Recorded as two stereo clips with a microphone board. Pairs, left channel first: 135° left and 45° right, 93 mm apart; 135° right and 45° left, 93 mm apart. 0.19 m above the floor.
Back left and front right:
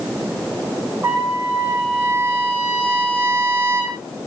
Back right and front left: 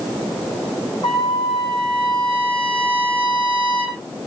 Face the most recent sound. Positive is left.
turn(degrees=-115)